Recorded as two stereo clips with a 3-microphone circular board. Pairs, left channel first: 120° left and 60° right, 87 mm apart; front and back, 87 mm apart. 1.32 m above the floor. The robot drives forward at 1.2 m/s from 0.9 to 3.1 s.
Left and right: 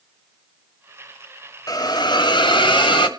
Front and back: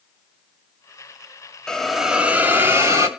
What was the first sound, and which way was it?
A hiss, 80° left.